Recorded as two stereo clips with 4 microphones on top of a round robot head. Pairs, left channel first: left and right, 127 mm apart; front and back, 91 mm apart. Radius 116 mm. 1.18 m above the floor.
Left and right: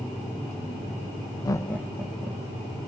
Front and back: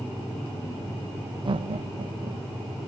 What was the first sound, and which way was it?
Laughter, 150° left.